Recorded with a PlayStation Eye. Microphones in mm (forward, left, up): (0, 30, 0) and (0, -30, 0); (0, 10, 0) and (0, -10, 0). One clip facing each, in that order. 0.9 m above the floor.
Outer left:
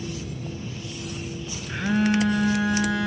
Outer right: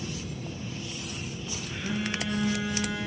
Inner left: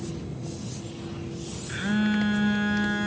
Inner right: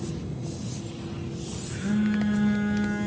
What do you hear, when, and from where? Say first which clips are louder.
1.7 s a phone buzzing: outer left 10 dB, inner left 1 dB; 60° left (ahead or behind), 1.6 m